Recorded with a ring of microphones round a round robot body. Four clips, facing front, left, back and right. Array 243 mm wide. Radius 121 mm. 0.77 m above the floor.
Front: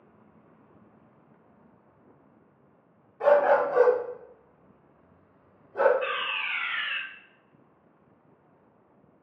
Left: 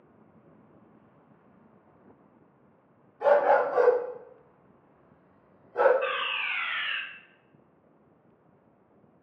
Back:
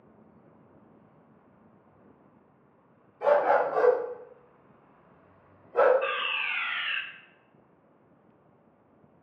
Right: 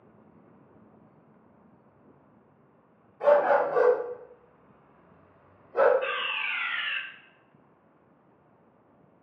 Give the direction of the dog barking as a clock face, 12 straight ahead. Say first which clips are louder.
Even, front 2 dB; 1 o'clock.